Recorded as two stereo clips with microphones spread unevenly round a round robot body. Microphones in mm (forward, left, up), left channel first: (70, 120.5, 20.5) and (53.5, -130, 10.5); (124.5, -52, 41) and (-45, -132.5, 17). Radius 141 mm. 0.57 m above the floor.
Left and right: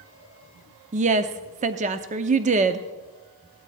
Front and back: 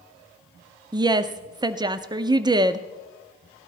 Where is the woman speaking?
120° right, 0.6 m.